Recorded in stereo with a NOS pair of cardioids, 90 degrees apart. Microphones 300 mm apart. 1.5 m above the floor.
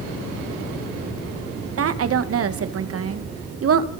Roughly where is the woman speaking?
Ahead right.